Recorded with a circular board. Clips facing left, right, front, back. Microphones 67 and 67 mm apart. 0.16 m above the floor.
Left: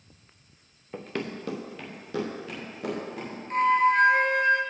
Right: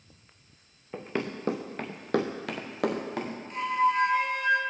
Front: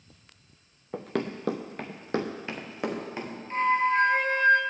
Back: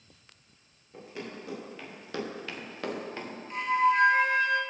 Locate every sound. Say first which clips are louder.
0.9 s running footsteps: right 1 dB, front 10 dB; 5° right, 1.0 m; by 3.4 s 80° right, 2 m
3.5 s a flute: left 5 dB, front 1 dB; 50° left, 0.9 m